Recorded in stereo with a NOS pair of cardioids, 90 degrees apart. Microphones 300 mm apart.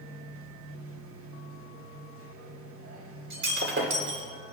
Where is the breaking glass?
45° right, 3.5 m.